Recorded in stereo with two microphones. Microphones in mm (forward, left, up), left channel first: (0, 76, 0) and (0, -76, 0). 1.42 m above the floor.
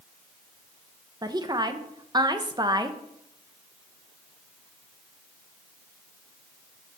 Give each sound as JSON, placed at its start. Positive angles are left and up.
{"t": 1.2, "sound": "a woman speaking", "side_deg": -25, "distance_m": 1.0}